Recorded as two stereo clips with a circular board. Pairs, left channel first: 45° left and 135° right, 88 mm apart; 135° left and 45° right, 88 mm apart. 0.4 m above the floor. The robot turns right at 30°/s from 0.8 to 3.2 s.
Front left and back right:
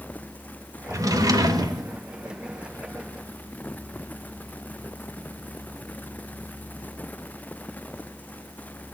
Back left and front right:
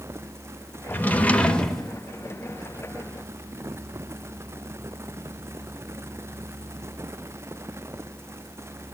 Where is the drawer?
165° right, 0.8 m; by 1.9 s 135° right, 0.8 m.